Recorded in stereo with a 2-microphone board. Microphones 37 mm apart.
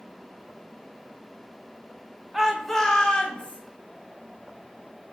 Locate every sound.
2.3 s a shout: 10° right (ahead or behind), 0.7 m; by 3.6 s 35° left (ahead or behind), 1.1 m